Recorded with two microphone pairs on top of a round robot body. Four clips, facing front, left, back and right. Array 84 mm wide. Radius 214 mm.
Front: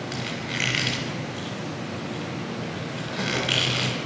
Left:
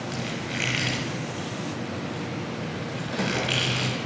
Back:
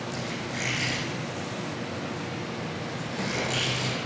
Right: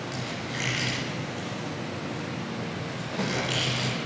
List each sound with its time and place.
0.1 s a squeak: 25° left, 1.1 m